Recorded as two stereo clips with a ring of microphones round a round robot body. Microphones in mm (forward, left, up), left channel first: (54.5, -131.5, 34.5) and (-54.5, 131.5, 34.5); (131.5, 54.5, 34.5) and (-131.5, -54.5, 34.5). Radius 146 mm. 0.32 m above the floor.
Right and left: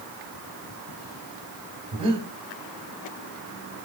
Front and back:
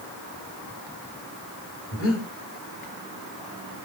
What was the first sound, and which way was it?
Breathing, 45° left.